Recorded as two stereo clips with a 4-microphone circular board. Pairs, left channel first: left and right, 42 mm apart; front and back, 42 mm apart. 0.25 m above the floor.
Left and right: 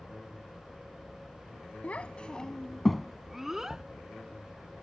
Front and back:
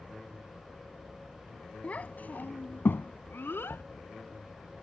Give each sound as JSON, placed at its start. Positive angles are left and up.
{"t": 1.8, "sound": "a child speaking", "azimuth_deg": 45}
{"t": 3.7, "sound": "knocking", "azimuth_deg": 85}